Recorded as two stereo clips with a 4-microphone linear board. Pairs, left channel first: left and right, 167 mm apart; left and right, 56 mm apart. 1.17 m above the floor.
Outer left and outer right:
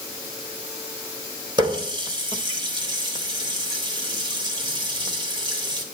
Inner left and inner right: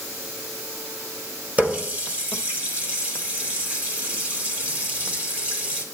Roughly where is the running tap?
Right.